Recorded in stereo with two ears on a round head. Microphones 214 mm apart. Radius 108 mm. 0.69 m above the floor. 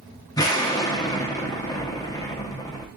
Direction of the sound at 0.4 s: 15° left (ahead or behind).